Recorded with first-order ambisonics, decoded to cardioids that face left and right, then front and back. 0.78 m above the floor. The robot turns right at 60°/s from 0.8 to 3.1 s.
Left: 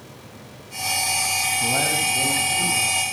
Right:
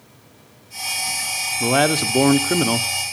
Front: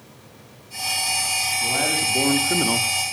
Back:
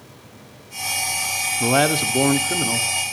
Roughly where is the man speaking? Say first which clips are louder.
Right 3 dB, back 3 dB; behind right.